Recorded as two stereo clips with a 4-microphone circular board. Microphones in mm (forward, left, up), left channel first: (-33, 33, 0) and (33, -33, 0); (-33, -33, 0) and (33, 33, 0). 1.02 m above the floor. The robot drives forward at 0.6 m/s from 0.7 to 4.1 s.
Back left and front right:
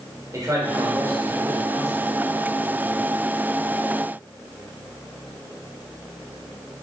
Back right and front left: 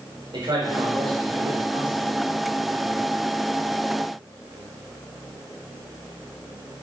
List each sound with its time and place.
0.3 s a man speaking: 10° left, 4 m; by 2.1 s 15° left, 3 m